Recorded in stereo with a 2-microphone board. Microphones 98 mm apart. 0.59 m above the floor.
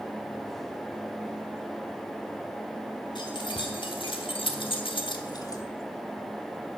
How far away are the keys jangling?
About 2 m.